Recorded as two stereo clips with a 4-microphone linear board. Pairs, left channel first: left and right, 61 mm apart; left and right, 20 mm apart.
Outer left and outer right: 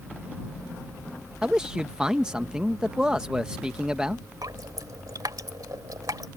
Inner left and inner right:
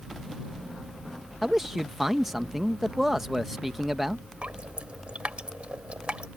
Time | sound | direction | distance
1.4 | a man speaking | 15° right (ahead or behind) | ?
4.4 | dripping | 75° right (ahead or behind) | ?